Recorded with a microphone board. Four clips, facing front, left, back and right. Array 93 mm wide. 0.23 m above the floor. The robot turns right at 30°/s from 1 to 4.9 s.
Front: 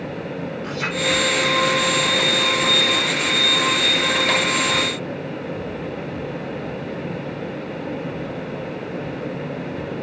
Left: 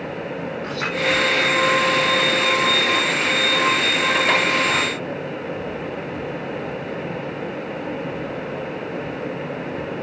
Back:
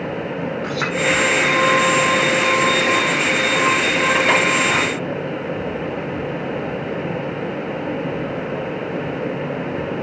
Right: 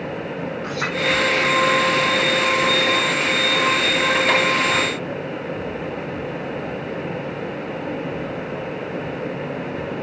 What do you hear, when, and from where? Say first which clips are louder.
0.6 s a clink: right 1 dB, back 3 dB; 175° right, 7 m